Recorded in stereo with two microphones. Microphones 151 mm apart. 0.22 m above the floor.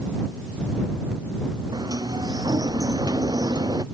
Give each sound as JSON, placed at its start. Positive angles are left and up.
{"t": 1.7, "sound": "a sliding door", "side_deg": -25}